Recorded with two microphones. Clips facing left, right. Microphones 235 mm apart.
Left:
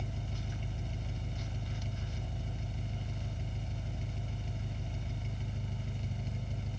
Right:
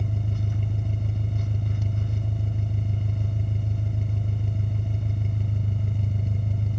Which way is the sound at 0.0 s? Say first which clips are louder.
Right 10 dB; 55° right (ahead or behind).